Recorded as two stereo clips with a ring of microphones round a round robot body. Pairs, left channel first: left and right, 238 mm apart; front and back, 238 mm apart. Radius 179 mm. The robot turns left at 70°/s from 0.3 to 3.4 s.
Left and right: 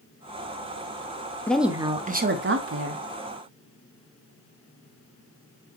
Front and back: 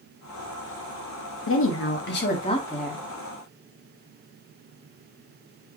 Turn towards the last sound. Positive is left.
turn(degrees=-130)